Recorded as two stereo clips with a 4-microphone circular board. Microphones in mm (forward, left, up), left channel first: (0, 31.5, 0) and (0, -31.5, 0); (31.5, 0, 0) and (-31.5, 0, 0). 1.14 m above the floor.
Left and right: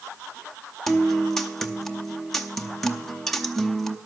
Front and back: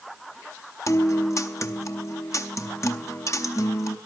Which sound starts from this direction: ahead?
A guitar, at 0.9 s.